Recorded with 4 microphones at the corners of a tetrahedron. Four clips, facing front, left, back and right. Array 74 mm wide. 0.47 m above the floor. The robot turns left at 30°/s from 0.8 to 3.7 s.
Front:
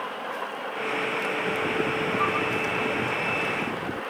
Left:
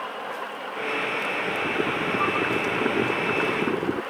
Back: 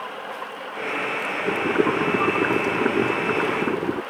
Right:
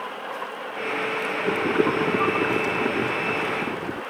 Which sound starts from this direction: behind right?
Boiling, at 1.5 s.